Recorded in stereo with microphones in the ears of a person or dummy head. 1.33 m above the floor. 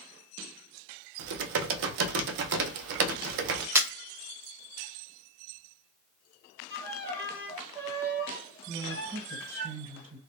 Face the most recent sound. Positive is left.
turn(degrees=-30)  # may be behind; listen again after turning